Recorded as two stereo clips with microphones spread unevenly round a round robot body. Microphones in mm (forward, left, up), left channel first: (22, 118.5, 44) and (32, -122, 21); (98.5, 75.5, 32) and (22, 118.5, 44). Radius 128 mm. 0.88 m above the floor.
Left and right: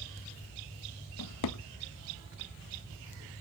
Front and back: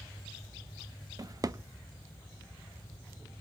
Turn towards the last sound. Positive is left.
turn(degrees=95)